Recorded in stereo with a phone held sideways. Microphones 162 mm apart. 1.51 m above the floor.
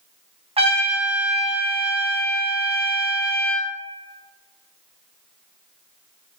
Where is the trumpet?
35° right (ahead or behind), 0.6 m.